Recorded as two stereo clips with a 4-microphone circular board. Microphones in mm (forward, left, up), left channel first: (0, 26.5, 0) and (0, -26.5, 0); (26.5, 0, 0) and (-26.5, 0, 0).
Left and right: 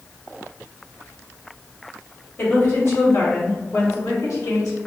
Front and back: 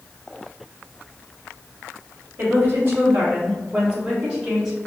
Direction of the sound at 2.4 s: 135° left.